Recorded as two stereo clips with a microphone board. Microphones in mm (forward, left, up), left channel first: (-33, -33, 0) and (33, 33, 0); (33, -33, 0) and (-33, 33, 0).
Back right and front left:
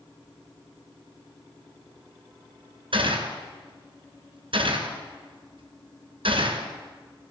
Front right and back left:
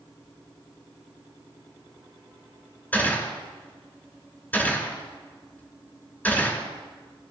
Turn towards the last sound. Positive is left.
turn(degrees=30)